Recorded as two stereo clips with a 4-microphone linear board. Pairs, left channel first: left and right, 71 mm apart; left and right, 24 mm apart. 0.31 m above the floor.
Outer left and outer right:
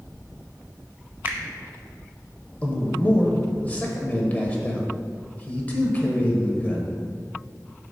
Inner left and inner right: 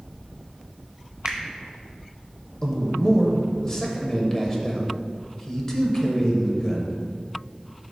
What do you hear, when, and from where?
1.2 s a finger snap: 30° right (ahead or behind), 0.8 m
2.6 s a man speaking: 20° left (ahead or behind), 0.9 m